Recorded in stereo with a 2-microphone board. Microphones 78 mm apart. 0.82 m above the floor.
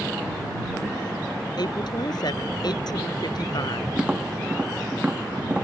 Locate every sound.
1.6 s a woman speaking: 60° left (ahead or behind)
4.0 s tapping: 15° right (ahead or behind)